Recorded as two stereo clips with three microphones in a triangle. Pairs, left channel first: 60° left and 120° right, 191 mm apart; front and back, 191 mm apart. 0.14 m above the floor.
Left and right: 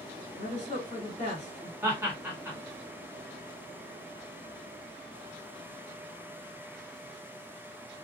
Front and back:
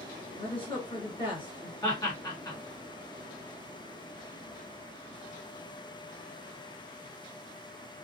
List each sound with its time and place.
0.4 s a woman speaking: 50° left, 1.8 m
1.8 s laughter: 50° right, 1.8 m